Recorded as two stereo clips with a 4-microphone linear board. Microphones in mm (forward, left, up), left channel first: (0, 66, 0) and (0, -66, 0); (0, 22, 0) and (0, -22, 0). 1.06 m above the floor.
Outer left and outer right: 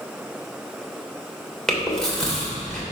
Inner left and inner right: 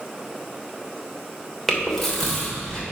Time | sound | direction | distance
1.7 | chewing | 5° left (ahead or behind) | 2.5 m